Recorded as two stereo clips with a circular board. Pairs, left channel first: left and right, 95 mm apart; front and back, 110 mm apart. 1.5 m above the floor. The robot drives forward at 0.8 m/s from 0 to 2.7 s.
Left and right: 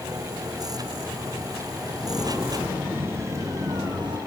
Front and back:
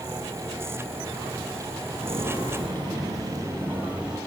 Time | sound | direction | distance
2.0 | footsteps | straight behind | 2 m